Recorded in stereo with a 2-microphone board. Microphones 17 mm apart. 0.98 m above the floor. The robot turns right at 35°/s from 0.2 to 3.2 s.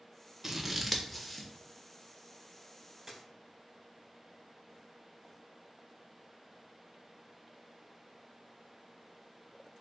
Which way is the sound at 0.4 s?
15° right (ahead or behind).